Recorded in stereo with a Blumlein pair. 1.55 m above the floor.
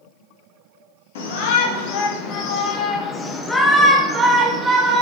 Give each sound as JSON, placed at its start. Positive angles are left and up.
{"t": 1.1, "sound": "a shout", "azimuth_deg": 55, "distance_m": 1.8}